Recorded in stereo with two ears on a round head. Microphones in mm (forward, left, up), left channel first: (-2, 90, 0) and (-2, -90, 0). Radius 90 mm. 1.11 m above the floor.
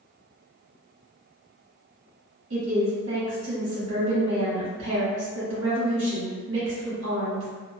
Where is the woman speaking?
65° right (ahead or behind), 1.6 m.